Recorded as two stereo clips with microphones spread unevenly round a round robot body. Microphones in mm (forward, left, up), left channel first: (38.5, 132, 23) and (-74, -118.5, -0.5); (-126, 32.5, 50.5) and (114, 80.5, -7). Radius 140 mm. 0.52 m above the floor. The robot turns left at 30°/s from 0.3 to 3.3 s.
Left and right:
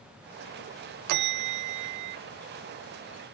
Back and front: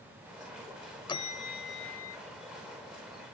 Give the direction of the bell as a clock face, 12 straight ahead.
3 o'clock.